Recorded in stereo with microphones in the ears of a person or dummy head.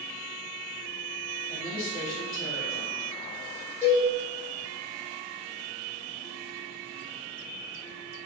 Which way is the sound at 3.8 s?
10° left (ahead or behind).